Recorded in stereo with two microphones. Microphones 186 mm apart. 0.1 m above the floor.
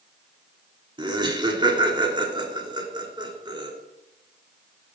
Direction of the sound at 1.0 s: 25° right (ahead or behind).